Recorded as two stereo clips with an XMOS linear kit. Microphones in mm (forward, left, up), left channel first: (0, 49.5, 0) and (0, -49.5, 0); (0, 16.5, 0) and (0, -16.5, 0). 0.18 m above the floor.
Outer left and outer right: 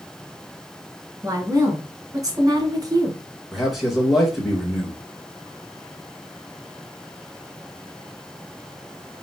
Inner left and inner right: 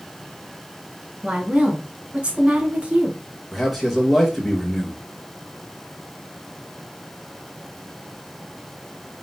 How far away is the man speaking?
About 2 m.